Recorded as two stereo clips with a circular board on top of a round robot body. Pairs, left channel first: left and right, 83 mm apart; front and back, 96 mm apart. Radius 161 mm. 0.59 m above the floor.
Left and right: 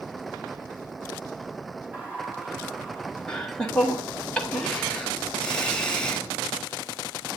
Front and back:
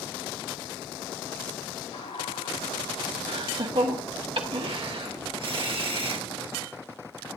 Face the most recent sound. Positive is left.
turn(degrees=170)